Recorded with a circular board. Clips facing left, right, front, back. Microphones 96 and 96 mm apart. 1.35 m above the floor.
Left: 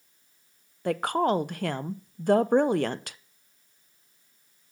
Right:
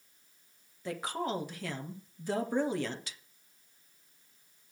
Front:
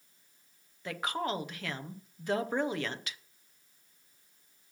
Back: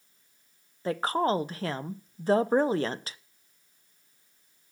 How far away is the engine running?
No engine running in this recording.